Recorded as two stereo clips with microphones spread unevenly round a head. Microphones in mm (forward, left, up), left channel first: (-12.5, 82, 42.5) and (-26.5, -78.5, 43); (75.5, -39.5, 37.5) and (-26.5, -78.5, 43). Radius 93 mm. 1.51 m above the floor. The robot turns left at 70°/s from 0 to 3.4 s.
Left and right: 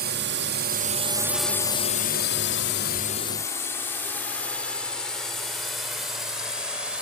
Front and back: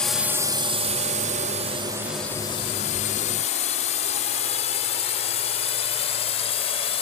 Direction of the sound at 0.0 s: 60° right.